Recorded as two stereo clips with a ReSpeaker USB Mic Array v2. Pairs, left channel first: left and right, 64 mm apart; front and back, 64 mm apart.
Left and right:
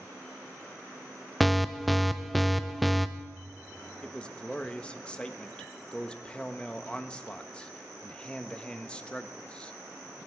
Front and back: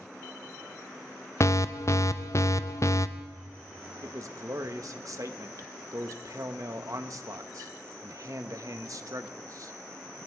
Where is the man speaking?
160° left, 1.1 m.